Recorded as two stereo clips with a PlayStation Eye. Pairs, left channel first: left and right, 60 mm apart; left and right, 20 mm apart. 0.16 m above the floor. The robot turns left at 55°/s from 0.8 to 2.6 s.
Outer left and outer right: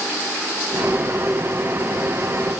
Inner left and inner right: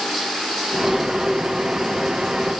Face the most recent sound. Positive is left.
No sound to turn to.